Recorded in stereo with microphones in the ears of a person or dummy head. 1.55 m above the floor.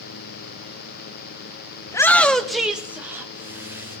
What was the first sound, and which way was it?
A shout, 10° left (ahead or behind).